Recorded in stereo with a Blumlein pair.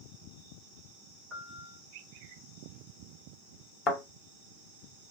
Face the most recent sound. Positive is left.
turn(degrees=25)